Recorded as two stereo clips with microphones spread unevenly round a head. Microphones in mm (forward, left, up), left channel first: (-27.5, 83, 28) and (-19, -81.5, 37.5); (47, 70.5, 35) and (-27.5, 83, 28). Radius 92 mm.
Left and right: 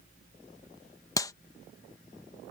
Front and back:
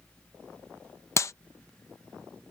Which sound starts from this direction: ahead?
A clap, at 1.2 s.